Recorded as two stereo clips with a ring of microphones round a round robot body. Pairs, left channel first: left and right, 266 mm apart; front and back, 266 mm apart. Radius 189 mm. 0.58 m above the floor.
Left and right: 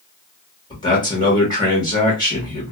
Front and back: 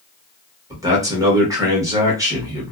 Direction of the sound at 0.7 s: 130° left.